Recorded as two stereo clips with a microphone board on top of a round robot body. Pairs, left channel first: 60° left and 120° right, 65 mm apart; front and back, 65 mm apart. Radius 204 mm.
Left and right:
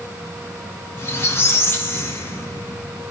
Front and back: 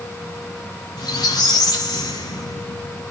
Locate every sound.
1.0 s a squeak: 5° left, 0.6 m